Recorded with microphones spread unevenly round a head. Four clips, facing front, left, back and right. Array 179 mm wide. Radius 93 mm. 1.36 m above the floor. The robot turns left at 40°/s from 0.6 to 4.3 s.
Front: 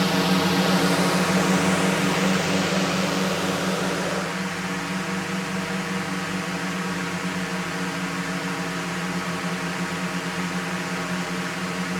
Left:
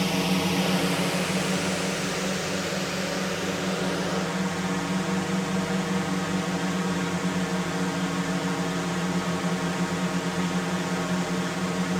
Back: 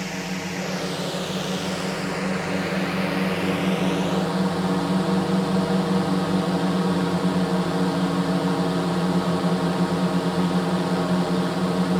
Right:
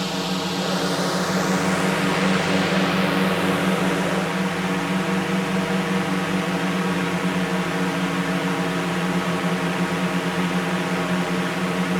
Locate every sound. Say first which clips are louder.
0.0 s a drone: even, front 9 dB; straight ahead; by 12.0 s 145° right